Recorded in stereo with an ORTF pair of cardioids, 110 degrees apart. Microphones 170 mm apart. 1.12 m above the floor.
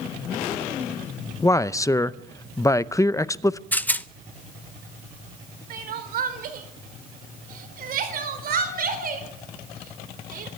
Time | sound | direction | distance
1.4 | a man speaking | 20° left | 0.7 m
3.7 | a rattle | 10° left | 0.7 m
5.7 | crying | 60° right | 4 m